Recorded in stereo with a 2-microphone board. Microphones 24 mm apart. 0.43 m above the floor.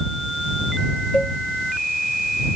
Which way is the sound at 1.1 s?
35° left (ahead or behind).